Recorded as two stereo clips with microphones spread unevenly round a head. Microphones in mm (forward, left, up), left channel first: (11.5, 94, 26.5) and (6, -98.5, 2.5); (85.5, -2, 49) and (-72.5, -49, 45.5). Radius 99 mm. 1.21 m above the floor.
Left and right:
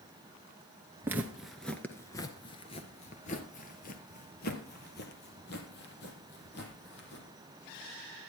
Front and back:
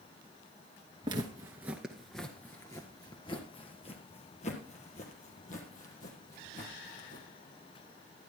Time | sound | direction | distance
1.0 | footsteps | 170° right | 1.2 m